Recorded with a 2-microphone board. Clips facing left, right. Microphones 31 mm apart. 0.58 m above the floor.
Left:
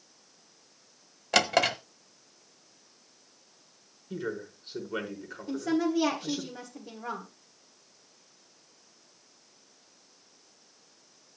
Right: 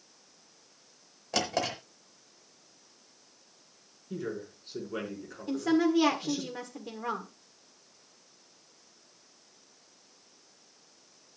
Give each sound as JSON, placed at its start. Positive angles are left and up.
{"t": 1.3, "sound": "a drawer", "side_deg": 85, "distance_m": 0.9}
{"t": 4.1, "sound": "a man speaking", "side_deg": 15, "distance_m": 5.0}
{"t": 5.5, "sound": "a woman speaking", "side_deg": -60, "distance_m": 1.5}